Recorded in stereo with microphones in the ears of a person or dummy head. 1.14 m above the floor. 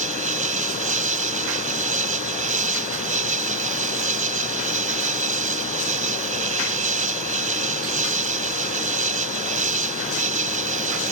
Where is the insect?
40° right (ahead or behind).